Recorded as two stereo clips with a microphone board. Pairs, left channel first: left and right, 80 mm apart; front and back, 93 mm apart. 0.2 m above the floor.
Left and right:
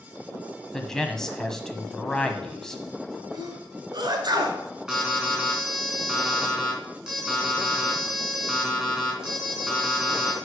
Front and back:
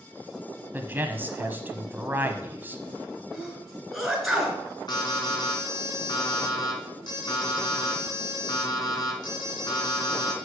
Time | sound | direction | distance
0.7 | a man speaking | 165° left | 1.1 m
3.3 | a sneeze | 95° right | 3 m
4.9 | an alarm | 10° right | 3 m